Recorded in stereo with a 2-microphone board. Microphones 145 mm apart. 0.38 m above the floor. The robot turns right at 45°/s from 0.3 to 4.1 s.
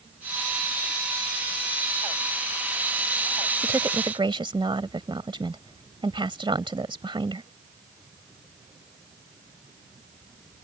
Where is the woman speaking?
20° right (ahead or behind); by 7.5 s 35° right (ahead or behind).